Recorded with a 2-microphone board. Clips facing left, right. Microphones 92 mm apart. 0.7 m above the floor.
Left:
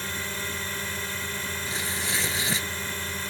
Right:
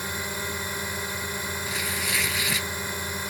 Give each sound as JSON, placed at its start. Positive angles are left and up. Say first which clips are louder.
{"t": 0.0, "sound": "a drone", "louder": "right 2 dB", "side_deg": -15}
{"t": 1.7, "sound": "tearing paper", "louder": "even", "side_deg": 30}